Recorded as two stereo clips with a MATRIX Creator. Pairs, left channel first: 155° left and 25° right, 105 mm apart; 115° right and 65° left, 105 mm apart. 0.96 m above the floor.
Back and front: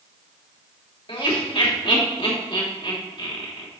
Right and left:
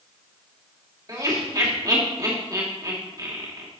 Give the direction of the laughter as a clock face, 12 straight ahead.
8 o'clock.